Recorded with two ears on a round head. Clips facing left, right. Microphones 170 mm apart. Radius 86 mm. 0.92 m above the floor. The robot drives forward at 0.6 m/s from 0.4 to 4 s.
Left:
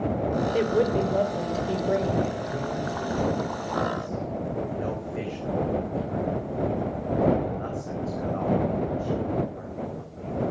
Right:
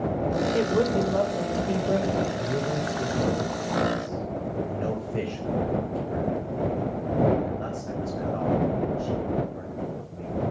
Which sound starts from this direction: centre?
A woman speaking, at 0.5 s.